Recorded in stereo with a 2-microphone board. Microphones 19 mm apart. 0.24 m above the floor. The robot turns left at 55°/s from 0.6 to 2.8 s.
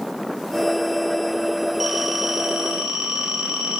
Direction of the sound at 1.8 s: 10° right.